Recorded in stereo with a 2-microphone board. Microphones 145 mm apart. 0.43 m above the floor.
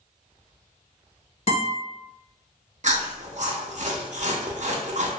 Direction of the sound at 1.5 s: 45° left (ahead or behind).